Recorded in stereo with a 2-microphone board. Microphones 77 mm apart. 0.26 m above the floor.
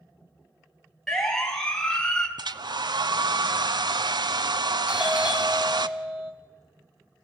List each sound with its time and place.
1.1 s a siren: 5° left (ahead or behind), 3.5 m; by 2.3 s 10° left (ahead or behind), 2 m
2.4 s a hair dryer: 70° right (ahead or behind), 0.6 m
4.9 s a doorbell: 10° right (ahead or behind), 1.6 m